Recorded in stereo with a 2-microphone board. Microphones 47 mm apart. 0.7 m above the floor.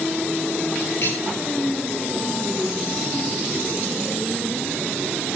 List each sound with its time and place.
1.0 s cutlery clinking: 50° left (ahead or behind), 8.5 m